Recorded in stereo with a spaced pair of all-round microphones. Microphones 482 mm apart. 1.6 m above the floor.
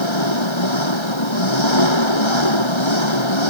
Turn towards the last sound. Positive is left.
turn(degrees=65)  # may be behind; listen again after turning